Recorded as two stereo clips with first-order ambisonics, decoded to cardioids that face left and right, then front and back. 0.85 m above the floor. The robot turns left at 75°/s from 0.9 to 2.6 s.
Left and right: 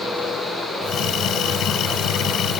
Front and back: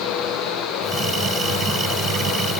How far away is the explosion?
I don't hear an explosion.